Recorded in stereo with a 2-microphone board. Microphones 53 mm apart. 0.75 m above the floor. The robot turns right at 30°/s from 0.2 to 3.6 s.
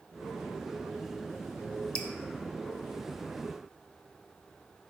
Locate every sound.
1.9 s dripping: 20° left (ahead or behind), 0.9 m